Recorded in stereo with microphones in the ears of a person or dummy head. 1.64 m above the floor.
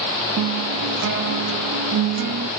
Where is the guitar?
55° right (ahead or behind), 0.7 m.